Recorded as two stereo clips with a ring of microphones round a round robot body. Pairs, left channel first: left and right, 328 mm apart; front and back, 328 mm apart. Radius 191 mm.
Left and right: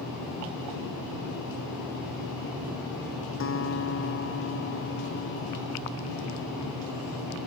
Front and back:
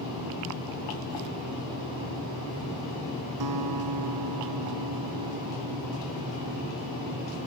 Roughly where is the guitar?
Behind left.